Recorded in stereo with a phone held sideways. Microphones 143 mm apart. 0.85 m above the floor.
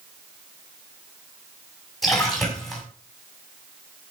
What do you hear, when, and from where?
2.0 s a splash: centre (ahead or behind), 6 m